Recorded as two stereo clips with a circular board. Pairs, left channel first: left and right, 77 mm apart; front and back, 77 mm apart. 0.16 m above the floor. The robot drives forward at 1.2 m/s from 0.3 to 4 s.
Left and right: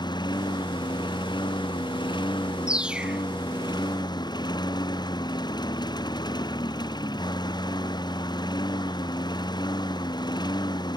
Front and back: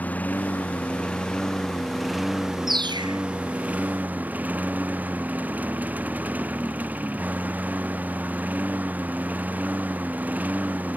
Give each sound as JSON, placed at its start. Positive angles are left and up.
{"t": 0.0, "sound": "a lawn mower", "azimuth_deg": 70}
{"t": 2.7, "sound": "a bird", "azimuth_deg": -165}